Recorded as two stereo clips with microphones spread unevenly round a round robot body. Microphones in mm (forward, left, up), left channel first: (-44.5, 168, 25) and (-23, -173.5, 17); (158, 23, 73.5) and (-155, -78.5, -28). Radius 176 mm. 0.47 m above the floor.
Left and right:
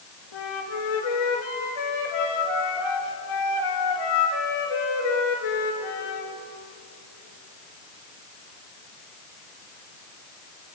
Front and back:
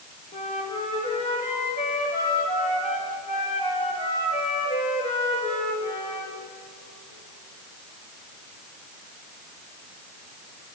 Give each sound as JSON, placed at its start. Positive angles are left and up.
{"t": 0.3, "sound": "a flute", "azimuth_deg": 90, "distance_m": 4.0}